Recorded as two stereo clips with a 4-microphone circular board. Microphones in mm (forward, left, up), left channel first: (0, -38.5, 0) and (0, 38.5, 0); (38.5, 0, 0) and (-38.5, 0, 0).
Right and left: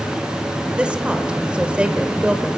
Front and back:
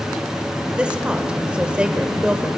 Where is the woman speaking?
130° left, 1.2 m.